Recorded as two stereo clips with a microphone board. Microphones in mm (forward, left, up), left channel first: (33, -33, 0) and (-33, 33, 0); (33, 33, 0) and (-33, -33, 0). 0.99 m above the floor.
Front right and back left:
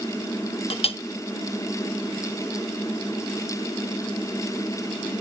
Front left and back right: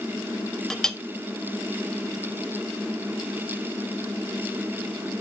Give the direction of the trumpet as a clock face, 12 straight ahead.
No trumpet in this recording.